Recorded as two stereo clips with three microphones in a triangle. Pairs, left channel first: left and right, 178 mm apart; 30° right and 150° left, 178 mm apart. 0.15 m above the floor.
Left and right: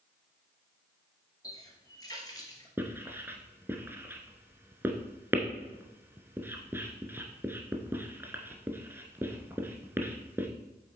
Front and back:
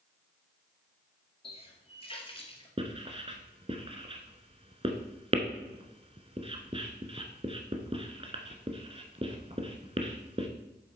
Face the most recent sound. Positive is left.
turn(degrees=-160)